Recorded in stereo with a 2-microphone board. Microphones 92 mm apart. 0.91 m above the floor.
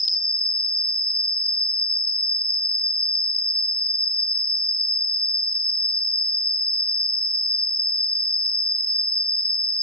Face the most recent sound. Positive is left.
turn(degrees=60)  # may be behind; listen again after turning